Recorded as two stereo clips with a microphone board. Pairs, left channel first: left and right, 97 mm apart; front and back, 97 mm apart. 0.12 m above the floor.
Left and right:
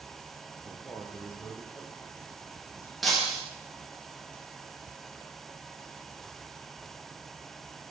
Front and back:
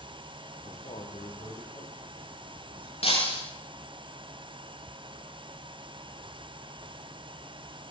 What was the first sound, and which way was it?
A man speaking, 25° left.